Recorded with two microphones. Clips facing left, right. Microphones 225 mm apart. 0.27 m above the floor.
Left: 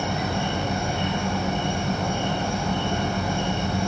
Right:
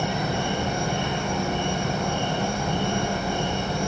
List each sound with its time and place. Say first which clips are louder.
0.0 s an insect: even; 85° right, 1.6 m